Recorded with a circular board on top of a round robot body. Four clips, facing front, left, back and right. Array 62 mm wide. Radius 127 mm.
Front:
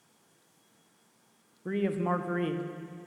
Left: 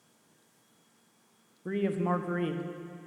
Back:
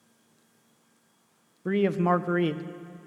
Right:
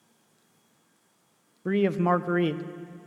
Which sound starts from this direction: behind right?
A man speaking, at 1.6 s.